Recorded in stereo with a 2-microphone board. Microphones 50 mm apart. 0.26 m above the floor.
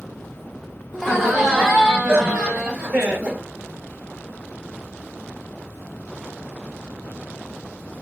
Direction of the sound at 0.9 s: 5° right (ahead or behind).